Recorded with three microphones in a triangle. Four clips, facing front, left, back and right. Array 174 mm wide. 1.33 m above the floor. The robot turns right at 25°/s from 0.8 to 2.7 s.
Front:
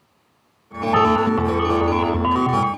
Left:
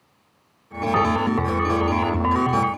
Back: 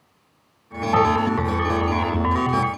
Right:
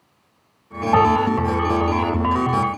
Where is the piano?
90° right, 9.5 m; by 2.3 s 60° right, 9.5 m.